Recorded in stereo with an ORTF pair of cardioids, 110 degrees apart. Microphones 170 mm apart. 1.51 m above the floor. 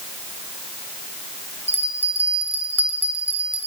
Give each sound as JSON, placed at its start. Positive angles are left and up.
{"t": 1.7, "sound": "a bell", "azimuth_deg": -10, "distance_m": 1.7}